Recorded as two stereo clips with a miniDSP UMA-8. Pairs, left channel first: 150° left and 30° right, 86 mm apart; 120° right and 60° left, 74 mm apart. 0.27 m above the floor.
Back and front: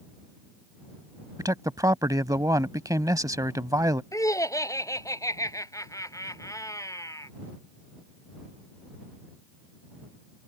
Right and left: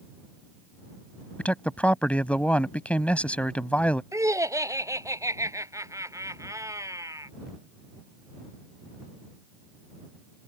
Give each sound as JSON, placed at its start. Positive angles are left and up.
{"t": 1.4, "sound": "a man speaking", "azimuth_deg": -55}
{"t": 4.1, "sound": "laughter", "azimuth_deg": 100}